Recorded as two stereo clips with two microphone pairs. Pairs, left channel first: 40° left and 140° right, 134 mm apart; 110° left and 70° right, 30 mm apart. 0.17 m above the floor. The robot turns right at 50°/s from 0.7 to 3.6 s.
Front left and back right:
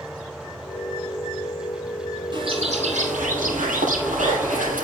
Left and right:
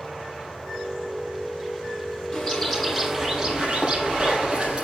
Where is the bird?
170° left, 6.5 m; by 4.8 s 130° right, 6.5 m.